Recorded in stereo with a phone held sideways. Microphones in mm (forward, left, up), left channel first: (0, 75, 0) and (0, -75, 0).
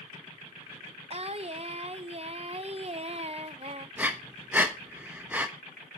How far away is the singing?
About 0.6 m.